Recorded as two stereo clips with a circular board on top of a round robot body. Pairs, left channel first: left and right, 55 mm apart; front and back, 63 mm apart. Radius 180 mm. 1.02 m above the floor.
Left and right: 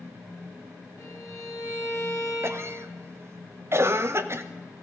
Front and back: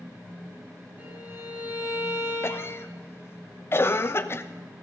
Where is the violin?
120° left, 4 m.